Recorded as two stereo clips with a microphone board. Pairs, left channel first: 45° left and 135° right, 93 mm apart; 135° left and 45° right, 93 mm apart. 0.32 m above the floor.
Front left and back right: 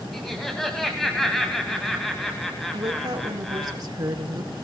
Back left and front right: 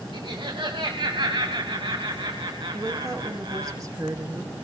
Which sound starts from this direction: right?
A woman speaking, at 2.7 s.